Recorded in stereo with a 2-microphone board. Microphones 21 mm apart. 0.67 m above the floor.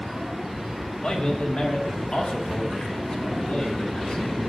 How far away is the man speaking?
About 1.6 m.